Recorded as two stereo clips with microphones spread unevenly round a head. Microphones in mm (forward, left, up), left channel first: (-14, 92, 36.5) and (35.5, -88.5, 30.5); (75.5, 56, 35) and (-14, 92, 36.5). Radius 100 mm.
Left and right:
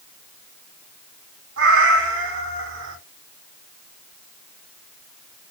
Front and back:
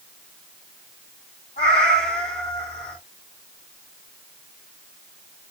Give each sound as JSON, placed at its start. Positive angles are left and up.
{"t": 1.6, "sound": "a cat meowing", "azimuth_deg": -60, "distance_m": 3.0}